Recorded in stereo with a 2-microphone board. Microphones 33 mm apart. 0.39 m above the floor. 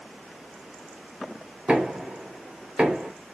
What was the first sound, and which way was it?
Knocking, 35° right (ahead or behind).